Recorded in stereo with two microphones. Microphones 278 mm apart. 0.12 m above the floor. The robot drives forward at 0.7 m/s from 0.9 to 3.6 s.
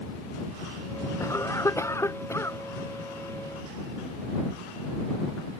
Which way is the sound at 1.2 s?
10° left (ahead or behind).